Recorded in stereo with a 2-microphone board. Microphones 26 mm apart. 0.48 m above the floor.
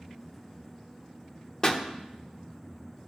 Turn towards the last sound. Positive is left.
turn(degrees=25)  # may be behind; listen again after turning